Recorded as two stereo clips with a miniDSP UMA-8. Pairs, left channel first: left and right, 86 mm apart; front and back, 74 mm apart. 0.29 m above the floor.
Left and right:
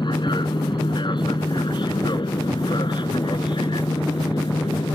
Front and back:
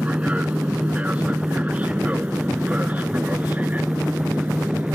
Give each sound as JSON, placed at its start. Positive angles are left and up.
{"t": 0.0, "sound": "an aircraft", "azimuth_deg": 110}